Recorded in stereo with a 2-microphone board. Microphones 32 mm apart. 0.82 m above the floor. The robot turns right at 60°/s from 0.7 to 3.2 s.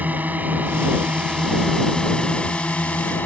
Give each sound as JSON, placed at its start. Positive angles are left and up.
{"t": 0.0, "sound": "a drone", "azimuth_deg": -65}